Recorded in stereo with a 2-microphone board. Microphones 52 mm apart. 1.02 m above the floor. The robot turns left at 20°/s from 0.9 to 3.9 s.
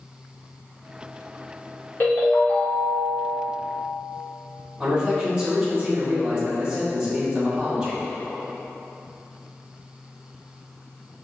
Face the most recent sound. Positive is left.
turn(degrees=-20)  # may be behind; listen again after turning